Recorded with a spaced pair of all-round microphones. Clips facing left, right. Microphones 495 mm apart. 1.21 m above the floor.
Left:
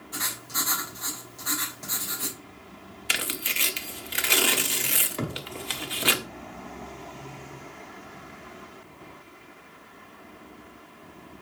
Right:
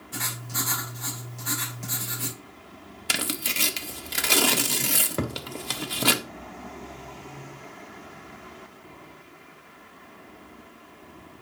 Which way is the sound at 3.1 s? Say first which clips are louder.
Right 4 dB; 60° right (ahead or behind).